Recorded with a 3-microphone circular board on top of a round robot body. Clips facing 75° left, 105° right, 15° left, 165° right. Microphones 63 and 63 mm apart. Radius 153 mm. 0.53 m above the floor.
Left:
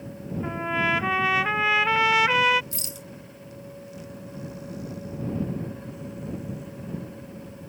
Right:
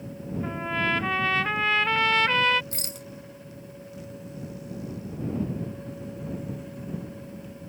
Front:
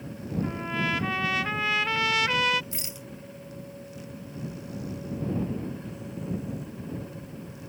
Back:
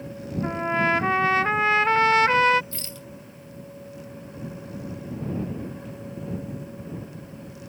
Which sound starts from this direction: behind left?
A trumpet, at 0.4 s.